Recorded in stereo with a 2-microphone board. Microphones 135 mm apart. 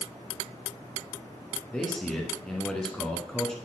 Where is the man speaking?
5° left (ahead or behind), 1.4 m.